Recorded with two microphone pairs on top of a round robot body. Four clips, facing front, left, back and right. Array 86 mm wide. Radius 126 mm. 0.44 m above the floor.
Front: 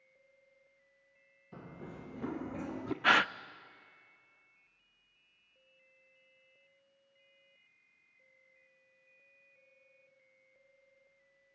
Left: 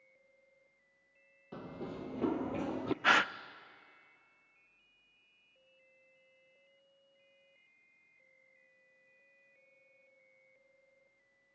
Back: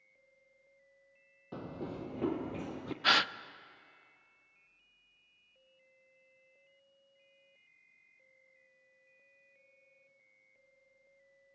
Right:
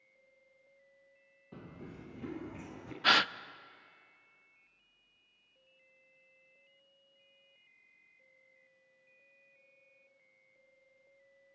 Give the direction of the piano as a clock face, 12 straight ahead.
No piano in this recording.